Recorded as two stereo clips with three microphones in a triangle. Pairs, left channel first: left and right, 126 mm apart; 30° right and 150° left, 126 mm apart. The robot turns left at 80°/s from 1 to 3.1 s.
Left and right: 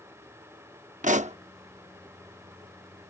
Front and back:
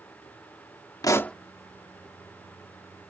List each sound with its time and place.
1.0 s a pop: 90° right; by 1.4 s 115° right